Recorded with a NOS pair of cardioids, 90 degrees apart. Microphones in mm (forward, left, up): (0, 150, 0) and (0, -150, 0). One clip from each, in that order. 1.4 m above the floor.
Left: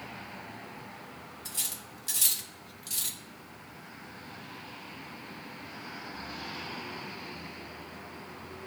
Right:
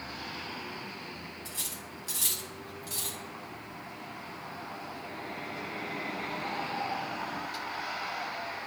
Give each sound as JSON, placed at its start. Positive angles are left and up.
{"t": 1.4, "sound": "cutlery clinking", "azimuth_deg": 35, "distance_m": 1.4}